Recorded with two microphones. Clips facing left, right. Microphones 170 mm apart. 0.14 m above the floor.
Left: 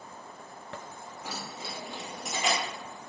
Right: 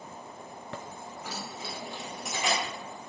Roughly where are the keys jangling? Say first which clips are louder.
Even; centre.